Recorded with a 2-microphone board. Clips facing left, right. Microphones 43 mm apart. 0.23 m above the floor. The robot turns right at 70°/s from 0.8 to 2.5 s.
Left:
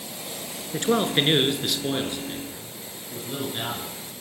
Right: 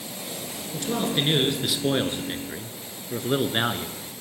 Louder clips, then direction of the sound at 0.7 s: Left 4 dB; 120° left.